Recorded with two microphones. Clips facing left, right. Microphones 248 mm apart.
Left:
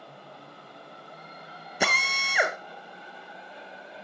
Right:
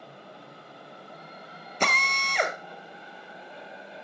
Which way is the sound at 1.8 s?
10° left (ahead or behind).